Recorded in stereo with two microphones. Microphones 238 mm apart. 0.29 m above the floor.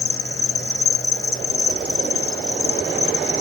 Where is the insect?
70° left (ahead or behind), 1.0 m.